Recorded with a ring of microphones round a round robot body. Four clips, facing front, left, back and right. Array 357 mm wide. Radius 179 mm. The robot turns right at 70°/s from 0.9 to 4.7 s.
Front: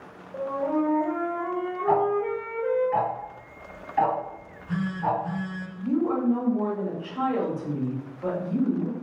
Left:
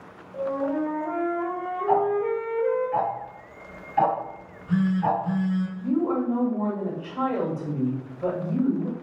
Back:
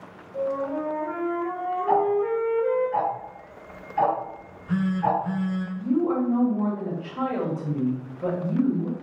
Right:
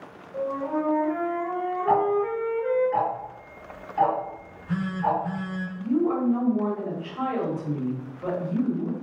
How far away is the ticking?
About 1.0 m.